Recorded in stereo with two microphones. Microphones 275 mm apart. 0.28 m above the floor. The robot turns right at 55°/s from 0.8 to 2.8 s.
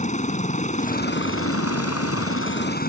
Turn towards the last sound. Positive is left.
turn(degrees=140)